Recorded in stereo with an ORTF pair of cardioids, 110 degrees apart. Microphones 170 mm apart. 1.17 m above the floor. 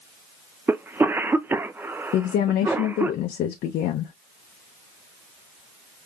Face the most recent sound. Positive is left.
turn(degrees=65)